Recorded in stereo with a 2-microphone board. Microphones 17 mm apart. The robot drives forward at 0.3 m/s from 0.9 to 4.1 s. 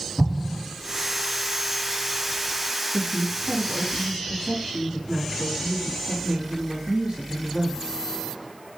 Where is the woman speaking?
60° right (ahead or behind), 2.5 m.